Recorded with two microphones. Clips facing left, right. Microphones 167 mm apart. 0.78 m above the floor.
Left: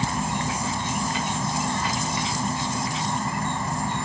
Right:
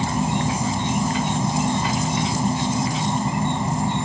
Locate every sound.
0.0 s an insect: 20° right (ahead or behind)